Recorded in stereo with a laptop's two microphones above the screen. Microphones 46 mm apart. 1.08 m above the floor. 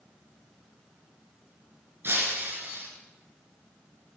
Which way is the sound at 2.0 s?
55° right (ahead or behind).